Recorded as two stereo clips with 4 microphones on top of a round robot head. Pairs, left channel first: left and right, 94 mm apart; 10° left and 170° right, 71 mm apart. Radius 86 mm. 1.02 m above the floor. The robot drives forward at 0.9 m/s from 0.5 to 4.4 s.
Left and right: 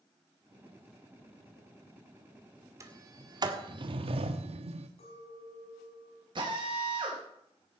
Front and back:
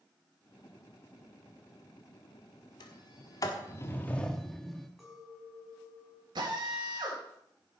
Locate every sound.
2.8 s a sliding door: 35° right, 2.0 m; by 4.9 s 80° right, 1.1 m
5.0 s a clink: 100° left, 6 m
6.3 s a drill: 135° right, 4 m